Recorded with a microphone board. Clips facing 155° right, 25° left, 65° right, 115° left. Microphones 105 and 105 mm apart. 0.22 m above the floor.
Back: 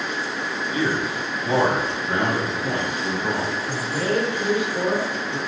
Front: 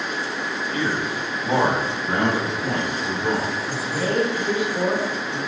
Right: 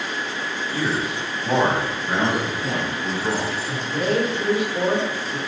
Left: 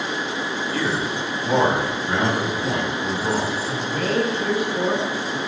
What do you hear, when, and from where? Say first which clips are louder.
0.7 s a man speaking: back 2 dB, right 1 dB; 90° right, 1.1 m; by 3.5 s 40° left, 1.8 m
3.7 s a man speaking: back 1 dB, right 1 dB; 20° right, 1.4 m